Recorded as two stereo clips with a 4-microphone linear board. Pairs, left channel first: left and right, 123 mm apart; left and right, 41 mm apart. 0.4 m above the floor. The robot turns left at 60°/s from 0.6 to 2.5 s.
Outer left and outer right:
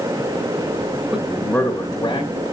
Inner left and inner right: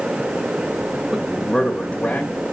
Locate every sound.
1.1 s a man speaking: 170° right, 1.4 m; by 2.5 s 110° left, 1.4 m